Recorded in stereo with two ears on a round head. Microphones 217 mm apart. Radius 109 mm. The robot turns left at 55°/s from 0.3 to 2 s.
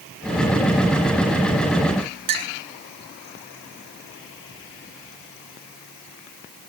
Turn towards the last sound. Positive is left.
turn(degrees=-70)  # may be behind; listen again after turning